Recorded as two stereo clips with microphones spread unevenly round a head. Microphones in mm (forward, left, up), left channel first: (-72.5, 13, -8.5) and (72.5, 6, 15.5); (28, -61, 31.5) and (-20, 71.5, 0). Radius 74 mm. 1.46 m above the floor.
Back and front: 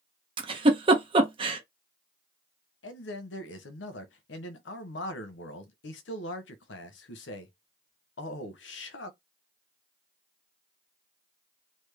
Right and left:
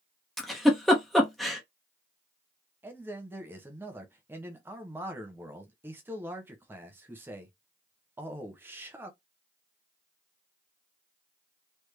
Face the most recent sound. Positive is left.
turn(degrees=-170)